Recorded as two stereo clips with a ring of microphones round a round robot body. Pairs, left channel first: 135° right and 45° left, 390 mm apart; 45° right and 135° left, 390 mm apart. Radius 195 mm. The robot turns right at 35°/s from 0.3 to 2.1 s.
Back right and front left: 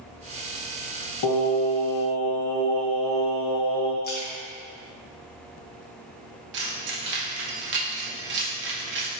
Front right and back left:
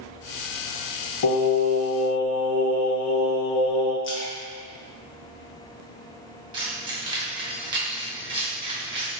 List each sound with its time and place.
1.2 s singing: 90° right, 0.6 m; by 3.9 s 60° right, 0.6 m
4.0 s a splash: 85° right, 0.7 m
6.5 s keys jangling: 70° left, 0.5 m